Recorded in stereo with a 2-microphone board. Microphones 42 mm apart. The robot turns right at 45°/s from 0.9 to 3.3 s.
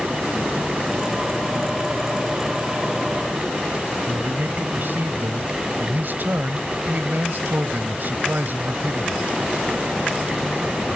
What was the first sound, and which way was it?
A man speaking, 60° right (ahead or behind).